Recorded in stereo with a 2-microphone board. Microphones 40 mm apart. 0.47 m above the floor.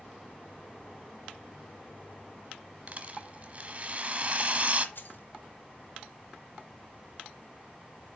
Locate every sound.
2.9 s a rattle: 35° right (ahead or behind), 1.2 m
5.0 s keys jangling: 60° left (ahead or behind), 1.4 m